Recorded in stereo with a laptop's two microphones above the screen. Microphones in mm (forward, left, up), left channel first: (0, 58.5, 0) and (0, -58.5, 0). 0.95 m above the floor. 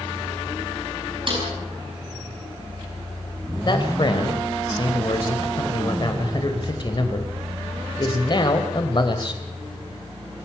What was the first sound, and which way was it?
A snare drum, 45° right (ahead or behind).